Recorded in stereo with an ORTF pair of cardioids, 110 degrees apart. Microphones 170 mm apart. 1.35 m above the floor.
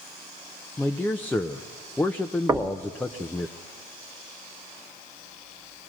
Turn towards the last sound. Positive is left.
turn(degrees=-20)